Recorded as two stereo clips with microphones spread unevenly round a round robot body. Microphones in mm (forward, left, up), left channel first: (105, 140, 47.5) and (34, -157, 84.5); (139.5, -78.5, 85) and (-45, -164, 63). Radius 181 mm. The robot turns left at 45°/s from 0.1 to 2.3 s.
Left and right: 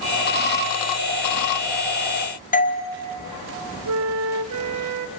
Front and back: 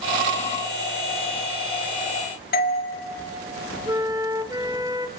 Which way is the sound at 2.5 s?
40° left.